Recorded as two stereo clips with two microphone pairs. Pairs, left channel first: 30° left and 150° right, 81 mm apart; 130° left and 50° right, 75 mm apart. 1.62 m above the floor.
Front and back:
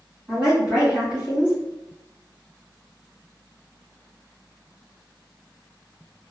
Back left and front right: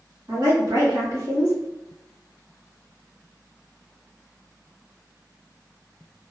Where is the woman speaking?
80° right, 1.7 m.